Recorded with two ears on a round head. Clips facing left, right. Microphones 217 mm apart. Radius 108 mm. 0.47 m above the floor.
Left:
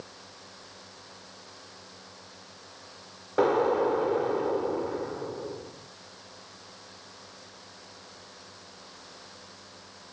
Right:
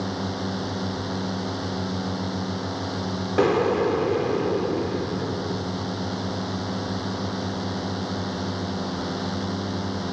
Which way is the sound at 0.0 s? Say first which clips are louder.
Right 21 dB; 85° right.